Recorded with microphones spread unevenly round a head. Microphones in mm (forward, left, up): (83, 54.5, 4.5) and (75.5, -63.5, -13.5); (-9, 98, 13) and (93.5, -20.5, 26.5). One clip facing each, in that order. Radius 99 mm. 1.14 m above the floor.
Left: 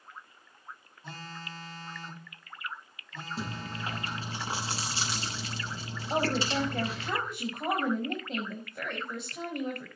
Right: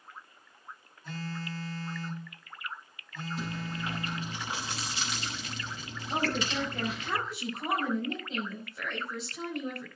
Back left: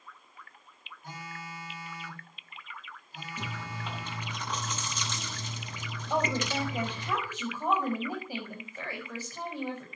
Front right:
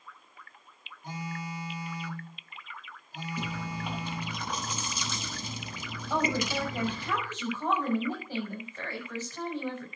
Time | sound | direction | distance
1.0 | a phone buzzing | 25° left | 8 m
3.4 | chewing | 30° left | 8 m
6.1 | a woman speaking | 50° left | 6 m